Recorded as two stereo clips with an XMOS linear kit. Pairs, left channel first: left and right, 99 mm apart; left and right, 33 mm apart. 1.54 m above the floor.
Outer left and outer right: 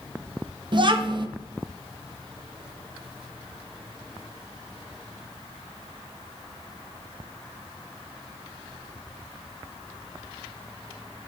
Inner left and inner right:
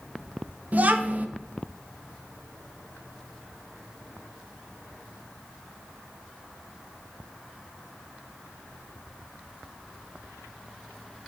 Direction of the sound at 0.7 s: 55° right (ahead or behind).